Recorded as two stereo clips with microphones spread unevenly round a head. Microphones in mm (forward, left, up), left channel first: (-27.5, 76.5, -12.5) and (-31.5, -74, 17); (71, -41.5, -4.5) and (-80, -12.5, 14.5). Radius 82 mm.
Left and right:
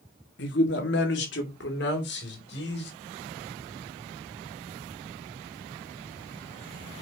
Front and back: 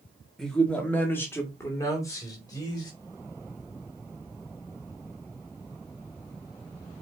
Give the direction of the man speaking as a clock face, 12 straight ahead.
9 o'clock.